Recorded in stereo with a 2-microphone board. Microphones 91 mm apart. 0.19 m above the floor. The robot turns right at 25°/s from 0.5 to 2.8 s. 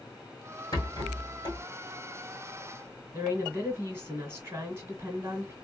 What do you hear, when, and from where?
0.7 s a rattle: 55° left (ahead or behind), 2 m; by 1.6 s 75° left (ahead or behind), 2 m
3.1 s a woman speaking: 25° right (ahead or behind), 1.5 m